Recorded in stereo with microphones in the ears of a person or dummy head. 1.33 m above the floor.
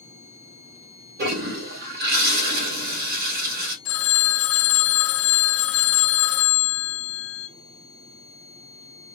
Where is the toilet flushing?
50° right (ahead or behind), 2 m.